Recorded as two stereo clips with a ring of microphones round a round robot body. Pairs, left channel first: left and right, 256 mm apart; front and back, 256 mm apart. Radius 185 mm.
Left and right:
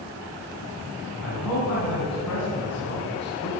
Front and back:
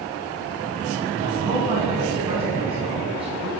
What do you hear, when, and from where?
1.2 s a man speaking: 110° left, 3 m